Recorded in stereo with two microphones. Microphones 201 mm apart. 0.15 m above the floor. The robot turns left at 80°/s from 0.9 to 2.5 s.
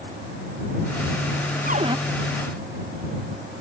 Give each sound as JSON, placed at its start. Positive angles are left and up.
{"t": 1.7, "sound": "a cupboard door", "side_deg": -45}